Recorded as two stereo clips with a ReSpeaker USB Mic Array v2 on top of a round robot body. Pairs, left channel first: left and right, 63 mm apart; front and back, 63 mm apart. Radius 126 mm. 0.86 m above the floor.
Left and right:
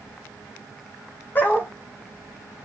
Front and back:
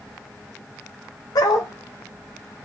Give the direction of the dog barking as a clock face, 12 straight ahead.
11 o'clock.